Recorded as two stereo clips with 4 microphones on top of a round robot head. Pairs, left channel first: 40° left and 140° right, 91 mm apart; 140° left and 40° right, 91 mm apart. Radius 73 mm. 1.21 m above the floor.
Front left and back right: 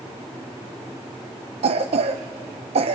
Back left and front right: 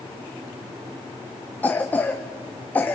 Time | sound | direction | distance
1.6 | a cough | 150° right | 0.7 m